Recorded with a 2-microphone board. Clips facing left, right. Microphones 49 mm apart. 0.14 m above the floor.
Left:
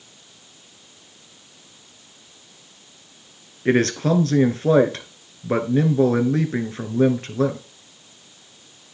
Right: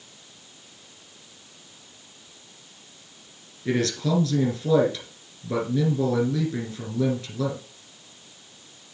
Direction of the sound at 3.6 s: 45° left (ahead or behind).